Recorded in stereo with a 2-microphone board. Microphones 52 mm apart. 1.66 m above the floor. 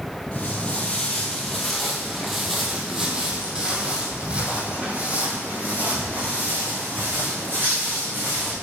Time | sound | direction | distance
0.3 | footsteps | 25° left (ahead or behind) | 1.9 m